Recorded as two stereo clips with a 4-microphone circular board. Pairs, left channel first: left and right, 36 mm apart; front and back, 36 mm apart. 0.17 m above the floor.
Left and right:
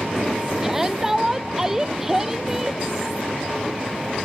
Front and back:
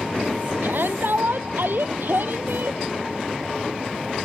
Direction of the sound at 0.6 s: 165° right.